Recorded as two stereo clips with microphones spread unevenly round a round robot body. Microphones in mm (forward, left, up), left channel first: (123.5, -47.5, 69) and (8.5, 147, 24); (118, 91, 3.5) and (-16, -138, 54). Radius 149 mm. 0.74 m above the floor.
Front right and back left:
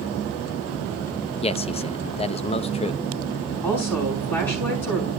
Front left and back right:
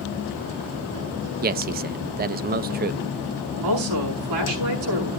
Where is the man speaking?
110° right, 0.5 m.